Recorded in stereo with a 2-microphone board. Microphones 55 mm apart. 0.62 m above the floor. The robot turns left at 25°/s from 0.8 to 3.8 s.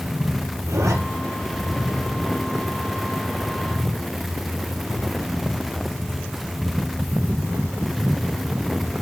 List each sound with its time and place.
0.7 s a zipper: 80° right, 3.5 m; by 0.9 s 75° right (ahead or behind), 3.5 m